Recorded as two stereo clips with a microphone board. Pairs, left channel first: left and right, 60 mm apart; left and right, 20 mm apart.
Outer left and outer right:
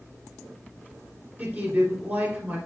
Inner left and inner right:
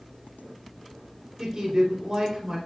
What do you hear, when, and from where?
1.4 s a woman speaking: 30° right (ahead or behind), 2.5 m